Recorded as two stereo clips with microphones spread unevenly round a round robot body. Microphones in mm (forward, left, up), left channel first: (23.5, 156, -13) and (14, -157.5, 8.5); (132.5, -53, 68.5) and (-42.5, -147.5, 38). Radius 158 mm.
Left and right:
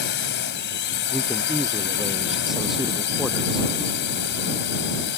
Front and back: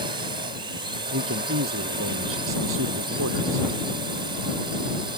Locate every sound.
0.0 s a drone: 145° left
1.1 s a man speaking: straight behind